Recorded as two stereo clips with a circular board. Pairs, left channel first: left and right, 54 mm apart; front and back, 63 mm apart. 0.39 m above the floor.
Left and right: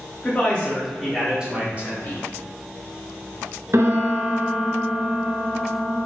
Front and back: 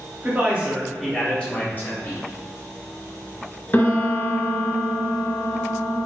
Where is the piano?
60° right, 0.8 m.